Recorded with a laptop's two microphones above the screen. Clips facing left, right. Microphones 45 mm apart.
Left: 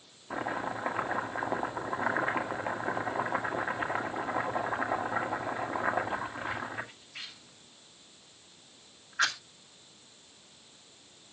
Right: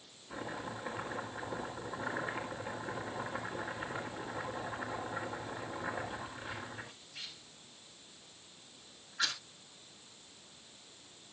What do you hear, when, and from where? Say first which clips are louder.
0.3 s chopping: left 8 dB; 60° left (ahead or behind), 2 m